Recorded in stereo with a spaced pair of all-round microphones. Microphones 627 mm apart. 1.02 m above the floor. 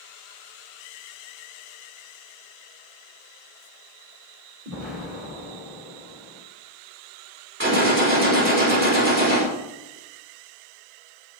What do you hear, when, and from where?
4.7 s an explosion: 25° right (ahead or behind), 4.5 m
7.6 s a gunshot: 20° right (ahead or behind), 3 m